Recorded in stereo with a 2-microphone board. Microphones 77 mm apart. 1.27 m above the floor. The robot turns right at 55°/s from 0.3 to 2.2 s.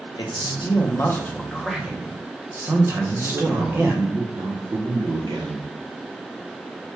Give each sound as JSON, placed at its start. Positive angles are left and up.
{"t": 0.2, "sound": "a man speaking", "azimuth_deg": 105, "distance_m": 0.6}
{"t": 3.0, "sound": "a man speaking", "side_deg": -85, "distance_m": 0.9}